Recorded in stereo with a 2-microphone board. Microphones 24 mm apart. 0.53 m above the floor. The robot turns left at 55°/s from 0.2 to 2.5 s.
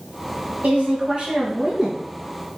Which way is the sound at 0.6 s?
100° right.